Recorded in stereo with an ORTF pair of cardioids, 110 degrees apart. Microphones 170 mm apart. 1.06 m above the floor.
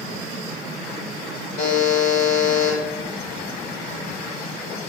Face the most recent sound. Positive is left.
turn(degrees=60)